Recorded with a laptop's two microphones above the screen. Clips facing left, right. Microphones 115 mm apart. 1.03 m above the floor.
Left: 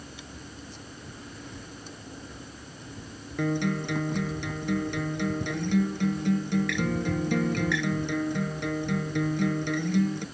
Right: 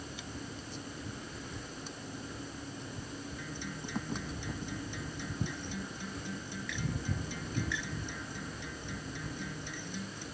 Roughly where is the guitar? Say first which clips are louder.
Left 15 dB; left.